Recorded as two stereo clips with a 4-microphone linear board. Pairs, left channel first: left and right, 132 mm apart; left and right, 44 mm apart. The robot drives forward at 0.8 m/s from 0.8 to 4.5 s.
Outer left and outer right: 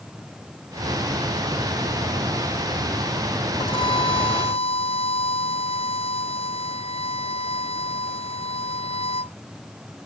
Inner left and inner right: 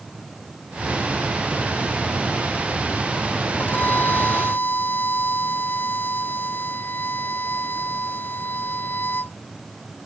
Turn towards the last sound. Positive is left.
turn(degrees=45)  # may be behind; listen again after turning